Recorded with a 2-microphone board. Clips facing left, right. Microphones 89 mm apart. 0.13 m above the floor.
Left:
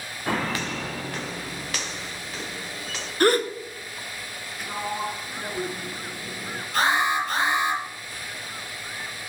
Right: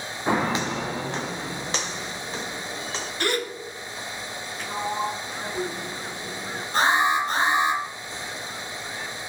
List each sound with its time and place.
0.3 s footsteps: 15° right (ahead or behind), 0.6 m; by 3.1 s 25° right (ahead or behind), 2.5 m
3.2 s a gasp: 40° left (ahead or behind), 1.1 m
4.6 s a sliding door: 5° left (ahead or behind), 1.1 m
6.7 s an alarm: 30° right (ahead or behind), 6 m